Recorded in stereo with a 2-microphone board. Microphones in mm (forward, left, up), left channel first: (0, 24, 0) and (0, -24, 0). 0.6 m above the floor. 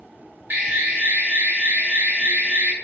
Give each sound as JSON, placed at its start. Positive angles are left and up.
{"t": 0.5, "sound": "an alarm", "side_deg": -35, "distance_m": 0.7}